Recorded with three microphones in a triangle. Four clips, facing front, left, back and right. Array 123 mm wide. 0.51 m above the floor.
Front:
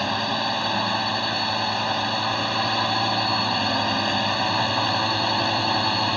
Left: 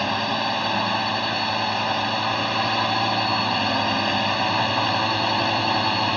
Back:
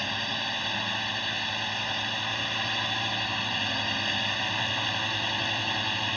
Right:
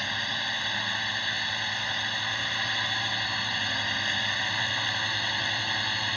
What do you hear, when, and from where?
0.0 s a drone: 55° left